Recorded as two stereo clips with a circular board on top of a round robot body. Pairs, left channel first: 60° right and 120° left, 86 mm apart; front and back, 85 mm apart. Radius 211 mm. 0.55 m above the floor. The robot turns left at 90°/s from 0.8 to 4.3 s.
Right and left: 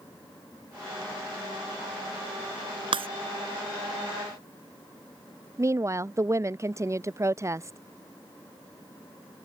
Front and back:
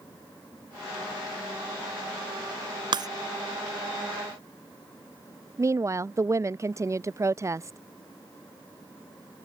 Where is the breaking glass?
145° left; by 3.1 s 130° left.